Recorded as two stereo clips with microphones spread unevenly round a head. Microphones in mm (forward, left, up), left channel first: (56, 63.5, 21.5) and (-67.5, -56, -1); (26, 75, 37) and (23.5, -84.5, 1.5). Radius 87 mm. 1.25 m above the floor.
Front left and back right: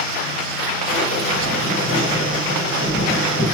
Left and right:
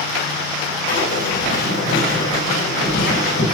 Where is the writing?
90° left, 8.5 m.